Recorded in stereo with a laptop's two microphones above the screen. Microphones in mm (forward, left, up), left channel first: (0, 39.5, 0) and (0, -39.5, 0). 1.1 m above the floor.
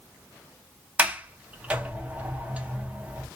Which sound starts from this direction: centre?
A sliding door, at 1.0 s.